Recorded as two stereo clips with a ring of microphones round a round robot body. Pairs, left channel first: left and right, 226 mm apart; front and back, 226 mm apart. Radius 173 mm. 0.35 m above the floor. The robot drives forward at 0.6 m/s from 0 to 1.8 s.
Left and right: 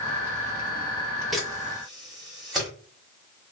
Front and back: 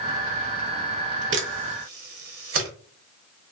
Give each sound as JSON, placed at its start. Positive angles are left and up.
{"t": 1.3, "sound": "a camera shutter", "azimuth_deg": 180, "distance_m": 0.7}